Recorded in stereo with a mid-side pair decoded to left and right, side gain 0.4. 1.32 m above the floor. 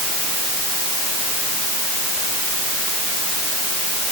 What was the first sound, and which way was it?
Only background noise.